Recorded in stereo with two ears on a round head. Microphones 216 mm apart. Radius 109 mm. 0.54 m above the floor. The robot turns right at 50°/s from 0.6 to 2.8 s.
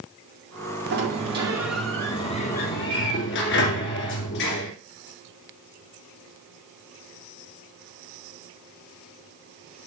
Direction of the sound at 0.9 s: 45° right.